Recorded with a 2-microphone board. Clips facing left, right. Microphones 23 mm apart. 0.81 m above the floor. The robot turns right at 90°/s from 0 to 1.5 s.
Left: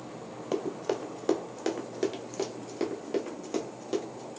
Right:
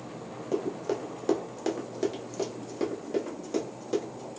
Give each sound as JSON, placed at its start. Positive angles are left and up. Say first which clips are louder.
{"t": 0.5, "sound": "running footsteps", "louder": "right 1 dB", "side_deg": 35, "distance_m": 0.8}